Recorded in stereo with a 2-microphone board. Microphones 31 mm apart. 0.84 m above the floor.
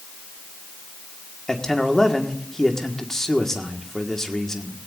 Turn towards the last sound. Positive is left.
turn(degrees=15)  # may be behind; listen again after turning